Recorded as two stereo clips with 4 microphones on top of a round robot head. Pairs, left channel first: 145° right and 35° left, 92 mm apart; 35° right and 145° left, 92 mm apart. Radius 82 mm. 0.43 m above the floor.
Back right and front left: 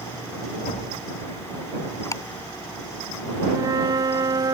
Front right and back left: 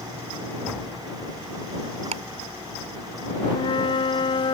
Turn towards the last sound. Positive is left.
turn(degrees=-10)